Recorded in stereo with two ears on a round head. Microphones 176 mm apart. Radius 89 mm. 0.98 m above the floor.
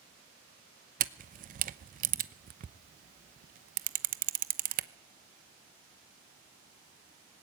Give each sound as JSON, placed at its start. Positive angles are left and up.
{"t": 1.0, "sound": "a camera shutter", "side_deg": -45, "distance_m": 0.8}